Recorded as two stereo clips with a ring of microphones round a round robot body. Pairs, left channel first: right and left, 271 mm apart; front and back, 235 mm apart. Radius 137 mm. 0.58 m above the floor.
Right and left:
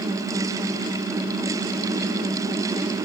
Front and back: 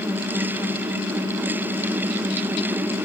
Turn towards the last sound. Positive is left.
No sound to turn to.